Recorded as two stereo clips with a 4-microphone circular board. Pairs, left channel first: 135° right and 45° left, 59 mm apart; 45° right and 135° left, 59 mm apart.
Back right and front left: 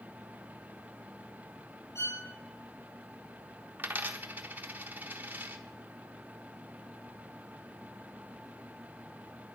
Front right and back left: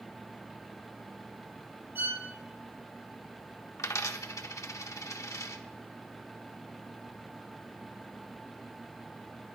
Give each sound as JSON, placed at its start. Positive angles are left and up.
{"t": 1.9, "sound": "a violin", "azimuth_deg": -170, "distance_m": 9.5}
{"t": 3.8, "sound": "a dropped coin", "azimuth_deg": -15, "distance_m": 1.1}